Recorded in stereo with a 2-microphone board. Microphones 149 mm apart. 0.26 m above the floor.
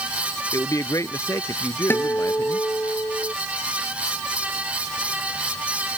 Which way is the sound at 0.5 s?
20° left (ahead or behind).